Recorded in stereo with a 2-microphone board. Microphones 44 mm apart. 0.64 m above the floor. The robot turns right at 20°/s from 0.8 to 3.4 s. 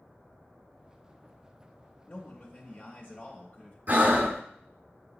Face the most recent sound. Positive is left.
turn(degrees=-40)  # may be behind; listen again after turning